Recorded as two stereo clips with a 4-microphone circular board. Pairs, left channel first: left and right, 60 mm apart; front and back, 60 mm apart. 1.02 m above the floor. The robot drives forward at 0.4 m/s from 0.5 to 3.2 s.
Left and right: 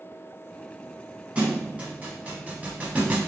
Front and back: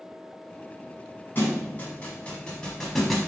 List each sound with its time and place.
1.4 s a thud: 30° right, 1.2 m; by 3.2 s 95° right, 0.9 m